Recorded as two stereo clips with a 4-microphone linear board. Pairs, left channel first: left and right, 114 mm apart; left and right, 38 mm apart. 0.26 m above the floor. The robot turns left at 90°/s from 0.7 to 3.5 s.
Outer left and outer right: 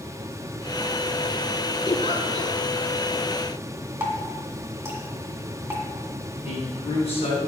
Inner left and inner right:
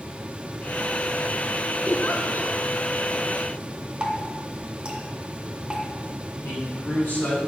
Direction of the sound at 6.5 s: 60° left (ahead or behind).